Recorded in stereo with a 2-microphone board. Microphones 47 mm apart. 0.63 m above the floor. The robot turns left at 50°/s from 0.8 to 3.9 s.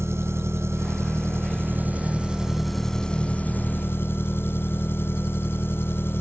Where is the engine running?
85° right; by 6.2 s 120° left.